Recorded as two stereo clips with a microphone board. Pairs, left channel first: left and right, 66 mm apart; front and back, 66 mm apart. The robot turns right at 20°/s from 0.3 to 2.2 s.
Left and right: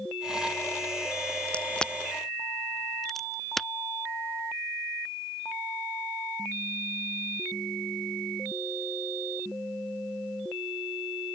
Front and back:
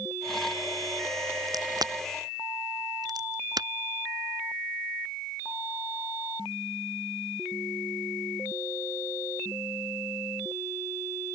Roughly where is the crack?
Behind.